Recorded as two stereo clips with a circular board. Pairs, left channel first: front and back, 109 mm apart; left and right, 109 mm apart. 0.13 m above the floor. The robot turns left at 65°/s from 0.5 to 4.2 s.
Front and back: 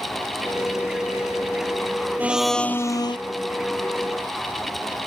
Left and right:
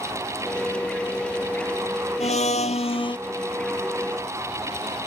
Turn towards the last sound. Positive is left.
turn(degrees=-25)